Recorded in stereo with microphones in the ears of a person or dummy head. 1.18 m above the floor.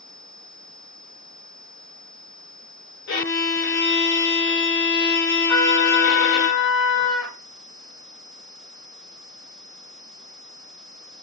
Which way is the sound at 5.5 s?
5° left (ahead or behind).